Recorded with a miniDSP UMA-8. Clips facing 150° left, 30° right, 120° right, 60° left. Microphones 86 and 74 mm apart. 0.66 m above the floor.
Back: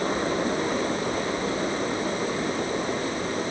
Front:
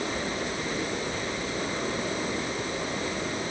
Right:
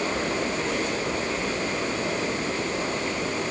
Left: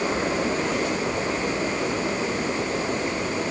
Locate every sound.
Only background noise.